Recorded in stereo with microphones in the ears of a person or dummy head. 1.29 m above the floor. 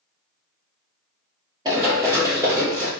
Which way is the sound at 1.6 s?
25° right (ahead or behind).